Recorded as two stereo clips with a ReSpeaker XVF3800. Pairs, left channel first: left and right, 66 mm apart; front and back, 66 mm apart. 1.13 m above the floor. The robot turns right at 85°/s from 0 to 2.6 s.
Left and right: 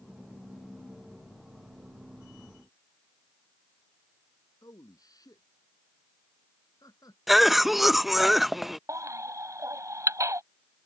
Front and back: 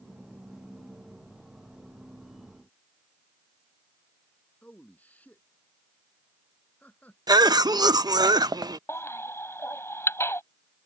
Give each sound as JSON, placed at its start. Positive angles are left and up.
{"t": 4.6, "sound": "a man speaking", "azimuth_deg": 65}
{"t": 7.3, "sound": "a cough", "azimuth_deg": -175}
{"t": 8.9, "sound": "a baby crying", "azimuth_deg": -50}